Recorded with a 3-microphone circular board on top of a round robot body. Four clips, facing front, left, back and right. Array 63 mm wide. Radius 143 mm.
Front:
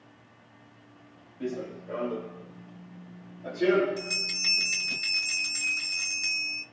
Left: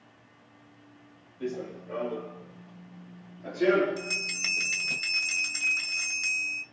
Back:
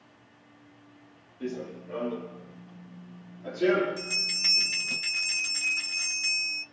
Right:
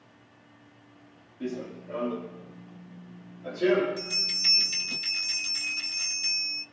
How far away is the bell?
About 1.6 m.